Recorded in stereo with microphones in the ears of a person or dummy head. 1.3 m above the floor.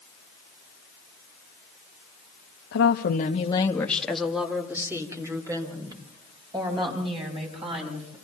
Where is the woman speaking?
80° left, 1.4 m; by 8.1 s 25° right (ahead or behind), 7.5 m.